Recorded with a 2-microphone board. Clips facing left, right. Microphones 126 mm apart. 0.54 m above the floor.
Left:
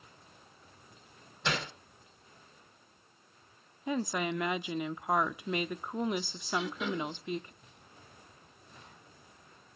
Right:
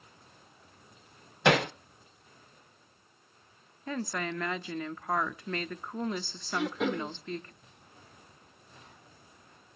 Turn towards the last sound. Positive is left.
turn(degrees=-55)  # may be behind; listen again after turning